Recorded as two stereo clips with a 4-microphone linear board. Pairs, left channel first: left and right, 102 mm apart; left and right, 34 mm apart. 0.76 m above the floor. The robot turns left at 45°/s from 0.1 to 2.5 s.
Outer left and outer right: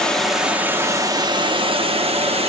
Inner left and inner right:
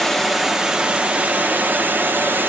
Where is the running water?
5° left, 0.7 m; by 2.5 s 100° right, 0.7 m.